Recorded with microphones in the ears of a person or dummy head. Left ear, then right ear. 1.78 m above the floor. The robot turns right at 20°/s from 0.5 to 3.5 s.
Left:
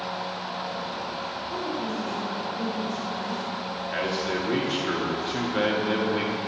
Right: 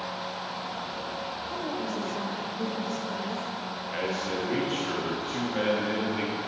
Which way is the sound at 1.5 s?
90° right.